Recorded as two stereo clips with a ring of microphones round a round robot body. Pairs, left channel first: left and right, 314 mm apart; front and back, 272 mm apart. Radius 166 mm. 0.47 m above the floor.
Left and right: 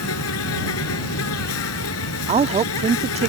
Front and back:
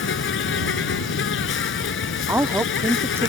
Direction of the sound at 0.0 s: 45° left.